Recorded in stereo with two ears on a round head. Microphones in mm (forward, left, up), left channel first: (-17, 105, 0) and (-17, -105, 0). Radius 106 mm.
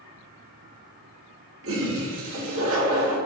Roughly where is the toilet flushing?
Right.